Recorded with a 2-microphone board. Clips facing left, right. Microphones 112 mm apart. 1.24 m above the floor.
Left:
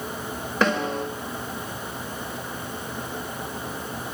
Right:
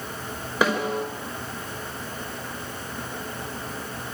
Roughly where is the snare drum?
Centre.